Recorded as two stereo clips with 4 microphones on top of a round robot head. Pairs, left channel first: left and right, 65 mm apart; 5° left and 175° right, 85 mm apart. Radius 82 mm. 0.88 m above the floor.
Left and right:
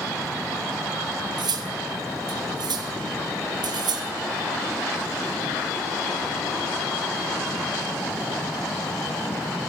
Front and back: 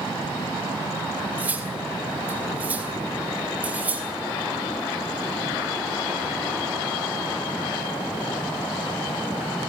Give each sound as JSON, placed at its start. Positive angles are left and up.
{"t": 1.4, "sound": "cutlery clinking", "azimuth_deg": -100, "distance_m": 2.0}